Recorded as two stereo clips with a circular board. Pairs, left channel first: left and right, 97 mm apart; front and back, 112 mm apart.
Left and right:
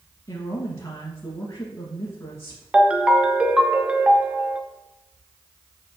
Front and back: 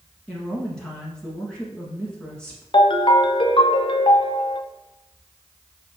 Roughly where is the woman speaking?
Left.